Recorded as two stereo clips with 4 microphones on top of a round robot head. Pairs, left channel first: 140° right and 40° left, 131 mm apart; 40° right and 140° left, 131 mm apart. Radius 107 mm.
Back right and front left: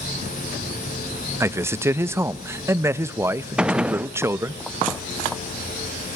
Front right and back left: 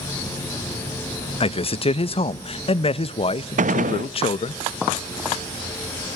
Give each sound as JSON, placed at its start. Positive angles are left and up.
{"t": 1.4, "sound": "a man speaking", "azimuth_deg": -25, "distance_m": 0.5}
{"t": 3.6, "sound": "a gunshot", "azimuth_deg": 125, "distance_m": 0.5}